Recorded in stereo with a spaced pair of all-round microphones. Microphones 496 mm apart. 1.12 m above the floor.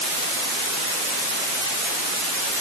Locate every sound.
Only background noise.